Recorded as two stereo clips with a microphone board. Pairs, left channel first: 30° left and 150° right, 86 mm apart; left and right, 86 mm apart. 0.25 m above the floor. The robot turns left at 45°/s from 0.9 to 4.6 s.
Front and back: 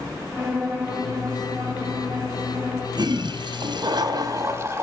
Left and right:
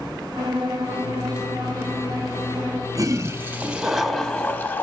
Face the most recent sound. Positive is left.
turn(degrees=150)